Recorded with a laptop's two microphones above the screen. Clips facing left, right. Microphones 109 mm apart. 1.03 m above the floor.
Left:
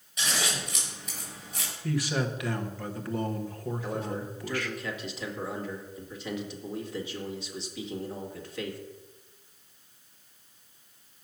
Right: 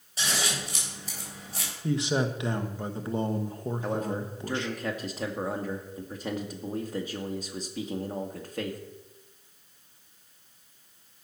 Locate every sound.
0.2 s scissors: 30° right (ahead or behind), 6.5 m
1.8 s a man speaking: 20° right (ahead or behind), 1.0 m
3.8 s a man speaking: 45° right (ahead or behind), 2 m